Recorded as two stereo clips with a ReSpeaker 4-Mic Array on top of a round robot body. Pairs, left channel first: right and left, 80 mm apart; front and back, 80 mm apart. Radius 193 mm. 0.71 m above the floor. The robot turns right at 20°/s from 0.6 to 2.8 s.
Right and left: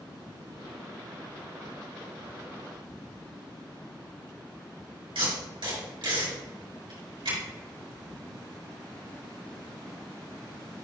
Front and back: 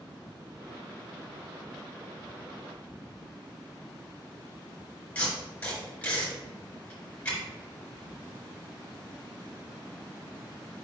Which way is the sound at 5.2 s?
75° left.